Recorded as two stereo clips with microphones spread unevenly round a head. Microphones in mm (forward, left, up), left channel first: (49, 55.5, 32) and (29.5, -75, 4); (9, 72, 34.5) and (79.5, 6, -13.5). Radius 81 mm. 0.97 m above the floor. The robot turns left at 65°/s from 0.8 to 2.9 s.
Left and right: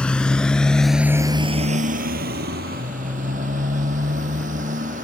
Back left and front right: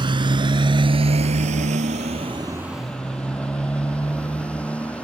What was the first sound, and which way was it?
A motorcycle, straight ahead.